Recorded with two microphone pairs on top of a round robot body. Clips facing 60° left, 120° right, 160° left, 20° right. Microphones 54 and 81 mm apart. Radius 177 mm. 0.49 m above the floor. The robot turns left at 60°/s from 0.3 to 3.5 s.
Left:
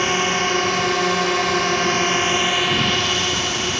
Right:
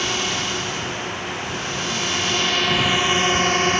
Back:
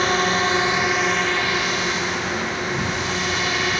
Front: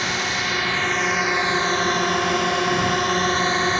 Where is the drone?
115° left; by 3.8 s 80° right.